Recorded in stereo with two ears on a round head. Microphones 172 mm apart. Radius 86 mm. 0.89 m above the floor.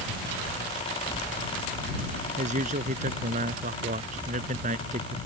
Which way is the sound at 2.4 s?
40° right (ahead or behind).